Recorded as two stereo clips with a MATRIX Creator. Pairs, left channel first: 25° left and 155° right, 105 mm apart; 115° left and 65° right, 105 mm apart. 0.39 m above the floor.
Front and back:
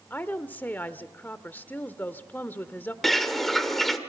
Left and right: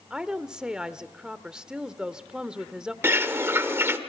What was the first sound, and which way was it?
A woman speaking, straight ahead.